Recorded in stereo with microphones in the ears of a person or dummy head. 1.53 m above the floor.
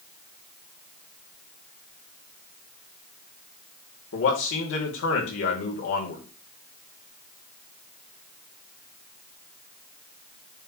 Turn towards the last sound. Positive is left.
turn(degrees=75)  # may be behind; listen again after turning